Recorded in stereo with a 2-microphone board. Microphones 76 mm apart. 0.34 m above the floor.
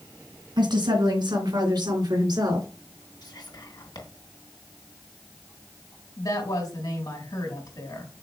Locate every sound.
0.6 s a woman speaking: 75° right (ahead or behind), 3 m; by 2.7 s 60° right (ahead or behind), 3.5 m
3.2 s whispering: 65° left (ahead or behind), 3 m
6.2 s a woman speaking: 60° left (ahead or behind), 3 m